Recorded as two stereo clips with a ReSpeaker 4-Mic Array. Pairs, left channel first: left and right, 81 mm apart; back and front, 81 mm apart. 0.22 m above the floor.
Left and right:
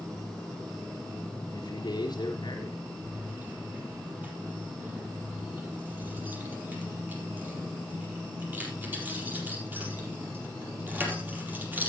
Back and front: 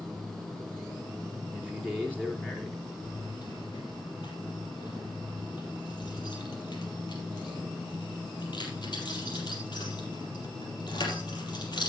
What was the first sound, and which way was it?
A man speaking, 105° left.